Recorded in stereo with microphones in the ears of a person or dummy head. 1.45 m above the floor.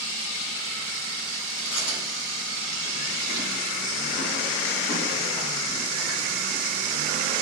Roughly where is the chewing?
Left.